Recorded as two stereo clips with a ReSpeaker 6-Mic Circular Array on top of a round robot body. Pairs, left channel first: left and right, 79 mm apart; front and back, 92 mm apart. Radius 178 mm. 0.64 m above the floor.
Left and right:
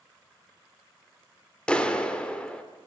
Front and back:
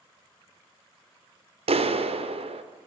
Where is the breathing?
I don't hear breathing.